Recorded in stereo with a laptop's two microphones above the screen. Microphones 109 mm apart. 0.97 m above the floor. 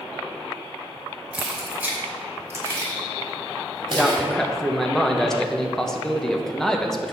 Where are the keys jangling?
10° right (ahead or behind), 3 m; by 4.2 s 45° right (ahead or behind), 3.5 m.